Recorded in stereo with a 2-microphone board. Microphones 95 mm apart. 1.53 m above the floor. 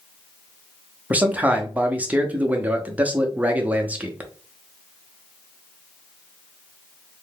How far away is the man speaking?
About 0.6 m.